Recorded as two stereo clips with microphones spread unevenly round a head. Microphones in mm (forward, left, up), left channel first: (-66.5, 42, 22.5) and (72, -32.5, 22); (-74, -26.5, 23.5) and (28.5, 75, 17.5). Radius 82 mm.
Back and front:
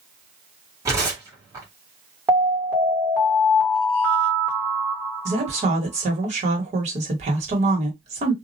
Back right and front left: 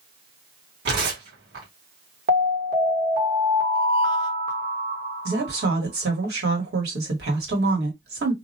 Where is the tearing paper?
45° left, 1.1 m.